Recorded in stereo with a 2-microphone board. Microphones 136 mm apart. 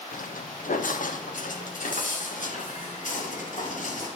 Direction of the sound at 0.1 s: 85° left.